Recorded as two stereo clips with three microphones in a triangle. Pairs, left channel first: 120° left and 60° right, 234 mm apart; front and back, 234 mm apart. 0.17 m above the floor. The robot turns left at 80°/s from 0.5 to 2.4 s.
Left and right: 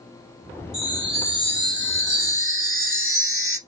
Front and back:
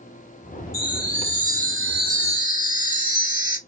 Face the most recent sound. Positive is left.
turn(degrees=110)